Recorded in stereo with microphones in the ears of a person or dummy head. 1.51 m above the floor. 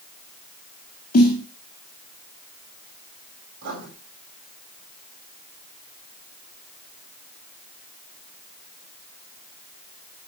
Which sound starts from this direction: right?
Writing, at 3.6 s.